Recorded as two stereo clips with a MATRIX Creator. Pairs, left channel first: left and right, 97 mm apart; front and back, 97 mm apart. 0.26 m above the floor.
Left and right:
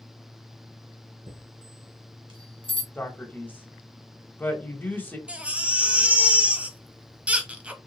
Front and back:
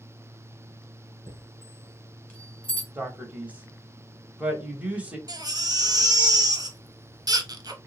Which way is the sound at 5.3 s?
165° right.